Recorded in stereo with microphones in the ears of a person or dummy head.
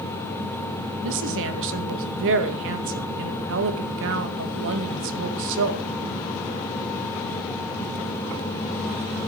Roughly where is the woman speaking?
Right.